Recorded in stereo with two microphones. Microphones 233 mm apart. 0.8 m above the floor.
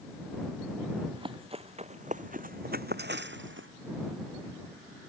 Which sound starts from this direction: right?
Running footsteps, at 1.1 s.